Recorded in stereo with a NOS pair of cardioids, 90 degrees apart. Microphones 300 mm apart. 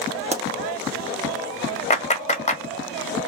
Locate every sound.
0.3 s a pop: 25° right, 0.5 m
1.9 s a clap: 25° left, 1.3 m